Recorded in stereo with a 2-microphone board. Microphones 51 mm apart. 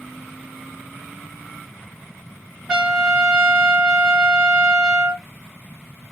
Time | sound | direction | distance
2.7 | a trumpet | 15° right (ahead or behind) | 0.9 m